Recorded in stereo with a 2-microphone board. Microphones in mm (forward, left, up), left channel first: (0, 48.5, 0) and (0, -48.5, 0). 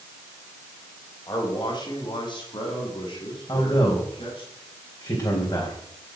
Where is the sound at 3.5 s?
45° left (ahead or behind), 4 m.